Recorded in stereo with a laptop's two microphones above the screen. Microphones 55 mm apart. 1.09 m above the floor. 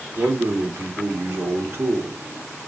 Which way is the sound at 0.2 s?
45° right (ahead or behind).